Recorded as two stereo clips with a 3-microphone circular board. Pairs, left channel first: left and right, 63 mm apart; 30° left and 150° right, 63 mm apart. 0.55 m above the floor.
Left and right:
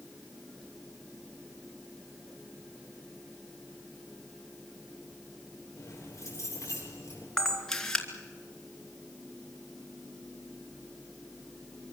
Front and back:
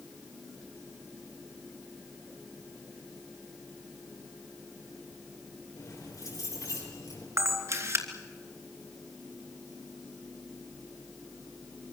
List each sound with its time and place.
5.8 s keys jangling: 50° left, 7.5 m
7.4 s a camera shutter: 170° left, 2.5 m